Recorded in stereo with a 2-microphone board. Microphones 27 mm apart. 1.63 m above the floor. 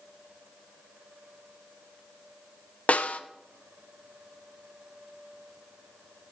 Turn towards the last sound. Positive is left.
turn(degrees=65)  # may be behind; listen again after turning